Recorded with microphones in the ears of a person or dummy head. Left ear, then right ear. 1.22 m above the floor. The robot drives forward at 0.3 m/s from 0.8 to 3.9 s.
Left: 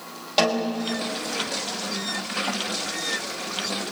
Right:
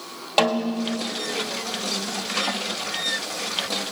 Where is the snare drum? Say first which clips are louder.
Right 1 dB; 30° right (ahead or behind), 1.7 m; by 1.0 s 25° right (ahead or behind), 1.7 m.